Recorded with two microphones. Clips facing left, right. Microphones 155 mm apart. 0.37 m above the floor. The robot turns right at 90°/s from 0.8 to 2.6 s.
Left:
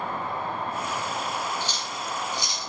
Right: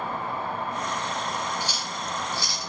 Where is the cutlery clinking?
15° right (ahead or behind), 0.5 m; by 2.7 s 25° left (ahead or behind), 0.5 m.